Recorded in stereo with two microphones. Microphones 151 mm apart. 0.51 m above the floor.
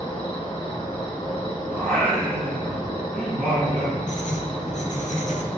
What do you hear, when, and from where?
0.0 s an insect: 40° left (ahead or behind), 0.8 m
1.7 s singing: centre (ahead or behind), 1.9 m
4.1 s writing: 60° left (ahead or behind), 0.7 m